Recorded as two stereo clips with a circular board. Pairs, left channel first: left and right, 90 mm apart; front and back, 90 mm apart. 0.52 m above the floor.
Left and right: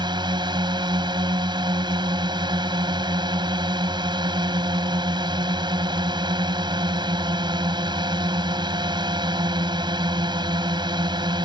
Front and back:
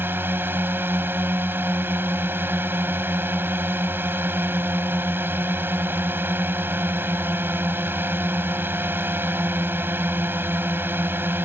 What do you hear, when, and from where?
0.0 s a drone: 115° right